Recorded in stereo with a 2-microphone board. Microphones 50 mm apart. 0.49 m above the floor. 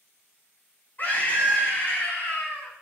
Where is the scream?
45° left (ahead or behind), 5 m.